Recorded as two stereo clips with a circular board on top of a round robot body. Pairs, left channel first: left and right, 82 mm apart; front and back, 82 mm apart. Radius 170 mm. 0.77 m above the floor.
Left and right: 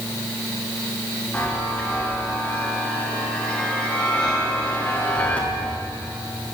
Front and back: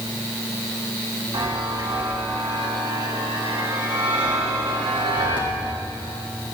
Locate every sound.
1.3 s a chime: 165° left, 3 m